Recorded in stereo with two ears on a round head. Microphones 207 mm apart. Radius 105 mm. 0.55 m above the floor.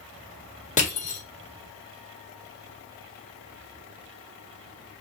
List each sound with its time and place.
0.8 s crushing: 35° left (ahead or behind), 2 m